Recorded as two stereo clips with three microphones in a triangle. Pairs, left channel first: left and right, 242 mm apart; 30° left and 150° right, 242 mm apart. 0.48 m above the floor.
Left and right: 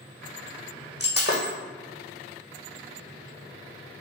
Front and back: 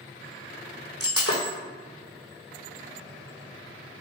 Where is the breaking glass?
45° left, 1.7 m.